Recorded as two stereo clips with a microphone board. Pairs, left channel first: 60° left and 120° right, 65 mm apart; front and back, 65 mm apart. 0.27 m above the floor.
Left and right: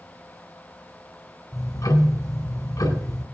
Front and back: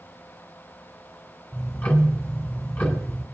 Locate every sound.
1.5 s ticking: 55° left, 2.5 m